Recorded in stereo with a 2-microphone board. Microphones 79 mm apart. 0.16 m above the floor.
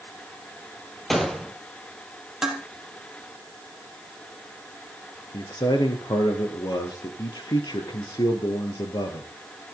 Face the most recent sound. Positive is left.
turn(degrees=65)  # may be behind; listen again after turning